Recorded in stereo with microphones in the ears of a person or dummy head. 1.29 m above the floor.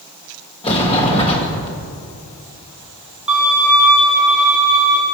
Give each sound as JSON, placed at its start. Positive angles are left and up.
{"t": 0.6, "sound": "a sliding door", "side_deg": 30, "distance_m": 1.6}
{"t": 3.3, "sound": "a violin", "side_deg": 0, "distance_m": 4.0}